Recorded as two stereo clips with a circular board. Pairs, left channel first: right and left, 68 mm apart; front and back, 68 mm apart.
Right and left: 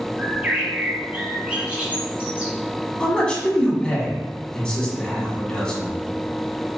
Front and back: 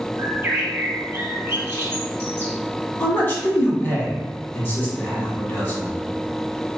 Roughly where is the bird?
Behind left.